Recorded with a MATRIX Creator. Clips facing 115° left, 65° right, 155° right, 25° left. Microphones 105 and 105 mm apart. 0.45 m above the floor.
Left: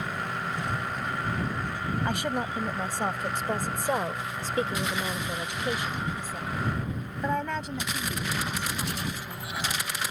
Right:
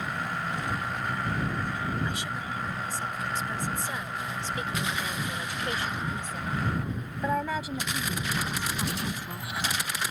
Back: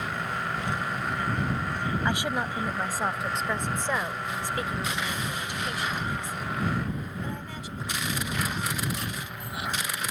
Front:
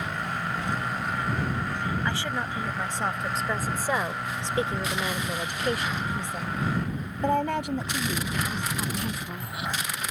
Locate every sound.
2.0 s a woman speaking: 130° left; by 9.5 s 5° left